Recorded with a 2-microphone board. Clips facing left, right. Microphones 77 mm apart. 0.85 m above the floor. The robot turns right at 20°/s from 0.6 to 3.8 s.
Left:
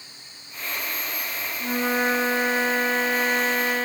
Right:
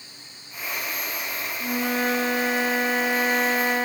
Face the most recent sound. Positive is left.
turn(degrees=-165)